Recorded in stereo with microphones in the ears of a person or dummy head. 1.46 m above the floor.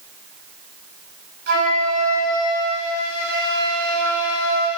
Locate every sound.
1.5 s a flute: 55° right (ahead or behind), 4 m